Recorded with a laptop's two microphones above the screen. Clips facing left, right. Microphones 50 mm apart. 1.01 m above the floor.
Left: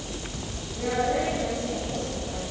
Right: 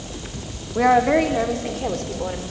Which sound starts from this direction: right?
A woman speaking, at 0.8 s.